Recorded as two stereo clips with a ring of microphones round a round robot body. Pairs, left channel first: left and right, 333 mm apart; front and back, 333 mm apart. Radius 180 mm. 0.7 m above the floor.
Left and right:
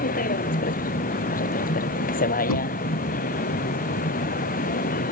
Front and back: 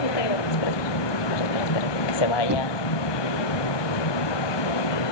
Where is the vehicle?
20° left.